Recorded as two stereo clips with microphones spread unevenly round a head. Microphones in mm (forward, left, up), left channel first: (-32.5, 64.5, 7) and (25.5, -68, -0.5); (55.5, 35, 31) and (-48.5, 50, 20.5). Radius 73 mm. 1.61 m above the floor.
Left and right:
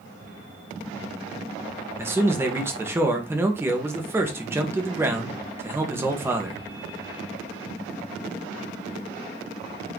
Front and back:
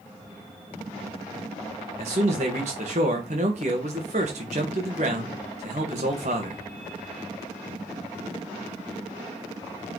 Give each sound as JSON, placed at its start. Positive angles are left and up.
{"t": 2.0, "sound": "a man speaking", "azimuth_deg": -145, "distance_m": 1.9}